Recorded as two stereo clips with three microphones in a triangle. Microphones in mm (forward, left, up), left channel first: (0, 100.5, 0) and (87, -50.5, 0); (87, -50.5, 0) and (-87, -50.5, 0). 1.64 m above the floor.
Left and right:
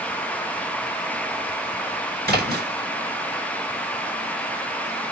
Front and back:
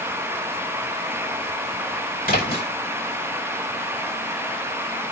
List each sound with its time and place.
2.2 s a splash: 35° right, 5 m